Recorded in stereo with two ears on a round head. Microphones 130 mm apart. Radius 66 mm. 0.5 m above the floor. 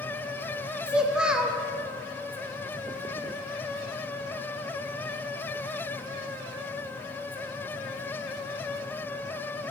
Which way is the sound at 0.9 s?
5° right (ahead or behind).